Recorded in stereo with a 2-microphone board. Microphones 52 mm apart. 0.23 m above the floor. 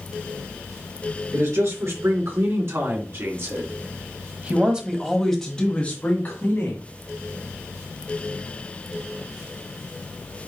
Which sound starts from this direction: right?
A man speaking, at 1.3 s.